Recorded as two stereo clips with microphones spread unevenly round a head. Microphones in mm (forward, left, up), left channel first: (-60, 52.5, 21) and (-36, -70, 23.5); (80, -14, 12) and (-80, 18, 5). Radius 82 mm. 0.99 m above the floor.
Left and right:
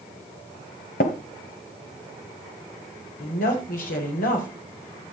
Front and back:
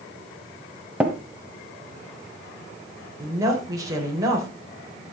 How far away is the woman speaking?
About 3.5 m.